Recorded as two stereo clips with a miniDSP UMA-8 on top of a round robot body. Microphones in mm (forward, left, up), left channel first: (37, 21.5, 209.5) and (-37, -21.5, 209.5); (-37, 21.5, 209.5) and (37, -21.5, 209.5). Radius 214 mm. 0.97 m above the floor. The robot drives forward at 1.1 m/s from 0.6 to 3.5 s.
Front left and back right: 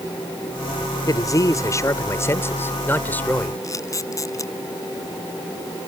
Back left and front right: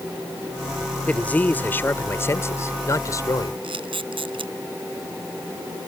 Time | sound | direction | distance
1.1 | a man speaking | 75° left | ?
3.6 | a camera shutter | 20° right | ?